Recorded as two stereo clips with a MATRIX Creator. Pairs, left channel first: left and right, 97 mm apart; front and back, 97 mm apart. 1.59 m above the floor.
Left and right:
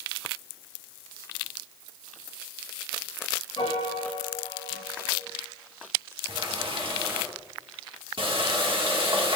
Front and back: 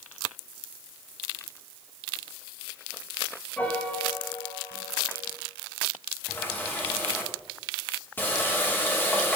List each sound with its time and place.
3.6 s a piano: 75° left, 2 m
6.3 s a running tap: 70° right, 2.5 m